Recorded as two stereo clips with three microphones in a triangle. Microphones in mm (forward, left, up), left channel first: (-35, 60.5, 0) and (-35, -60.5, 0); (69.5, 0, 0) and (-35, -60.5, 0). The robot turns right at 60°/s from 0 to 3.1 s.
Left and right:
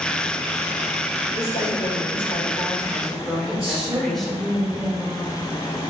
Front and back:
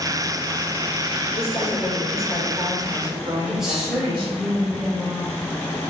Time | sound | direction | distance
1.4 | a woman speaking | 70° left | 1.9 m
3.5 | a woman speaking | 65° right | 1.5 m